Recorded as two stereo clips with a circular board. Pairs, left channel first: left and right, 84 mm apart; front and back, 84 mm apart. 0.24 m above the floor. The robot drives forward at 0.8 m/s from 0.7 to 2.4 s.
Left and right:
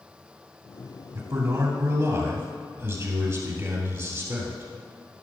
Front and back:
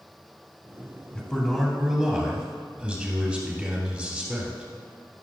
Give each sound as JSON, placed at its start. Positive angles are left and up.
{"t": 1.1, "sound": "a man speaking", "azimuth_deg": -70, "distance_m": 1.9}